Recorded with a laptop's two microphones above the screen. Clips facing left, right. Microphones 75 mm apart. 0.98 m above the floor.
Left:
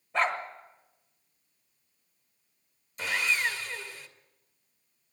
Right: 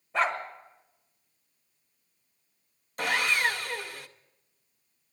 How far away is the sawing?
About 0.6 m.